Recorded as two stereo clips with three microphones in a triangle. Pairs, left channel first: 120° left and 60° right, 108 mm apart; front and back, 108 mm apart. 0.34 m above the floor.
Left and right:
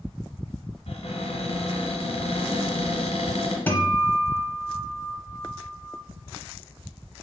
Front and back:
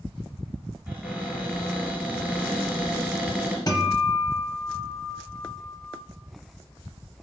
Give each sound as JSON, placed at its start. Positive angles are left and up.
{"t": 0.9, "sound": "a cupboard door", "azimuth_deg": 105, "distance_m": 1.5}
{"t": 3.7, "sound": "a guitar", "azimuth_deg": 50, "distance_m": 0.7}